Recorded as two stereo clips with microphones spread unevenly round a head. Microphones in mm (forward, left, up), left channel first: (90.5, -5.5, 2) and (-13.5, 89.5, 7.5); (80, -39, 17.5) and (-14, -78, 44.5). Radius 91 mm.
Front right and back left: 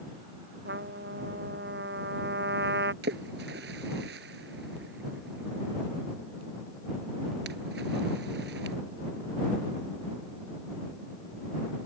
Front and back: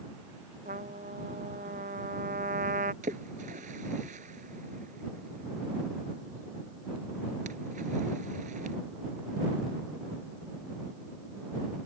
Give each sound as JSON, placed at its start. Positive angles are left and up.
{"t": 0.7, "sound": "a trumpet", "azimuth_deg": 175}
{"t": 3.0, "sound": "a splash", "azimuth_deg": 165}